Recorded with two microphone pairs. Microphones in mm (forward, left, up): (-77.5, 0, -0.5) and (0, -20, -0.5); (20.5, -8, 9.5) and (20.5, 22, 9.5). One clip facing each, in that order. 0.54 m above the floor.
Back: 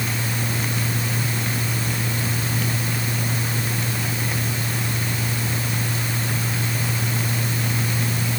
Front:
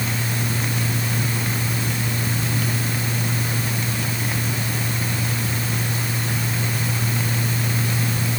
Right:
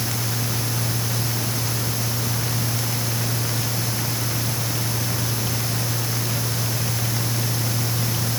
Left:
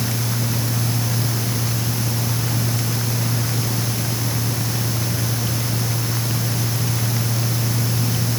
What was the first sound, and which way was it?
Only background noise.